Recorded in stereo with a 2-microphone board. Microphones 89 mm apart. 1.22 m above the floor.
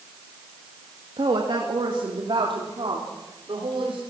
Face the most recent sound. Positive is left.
turn(degrees=-75)  # may be behind; listen again after turning